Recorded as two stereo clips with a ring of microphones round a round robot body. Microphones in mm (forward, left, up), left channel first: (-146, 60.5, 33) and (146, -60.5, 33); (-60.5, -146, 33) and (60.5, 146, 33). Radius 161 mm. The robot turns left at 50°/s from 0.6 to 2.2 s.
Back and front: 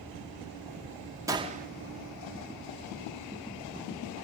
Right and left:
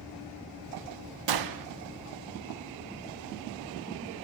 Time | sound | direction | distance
1.3 | a gunshot | 55° left | 0.7 m